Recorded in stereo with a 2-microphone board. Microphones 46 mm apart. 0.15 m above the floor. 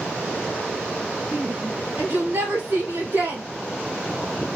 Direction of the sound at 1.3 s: 65° right (ahead or behind).